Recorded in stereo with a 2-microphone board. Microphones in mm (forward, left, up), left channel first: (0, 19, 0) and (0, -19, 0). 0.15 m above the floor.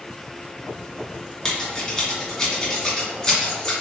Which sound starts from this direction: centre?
Scissors, at 1.4 s.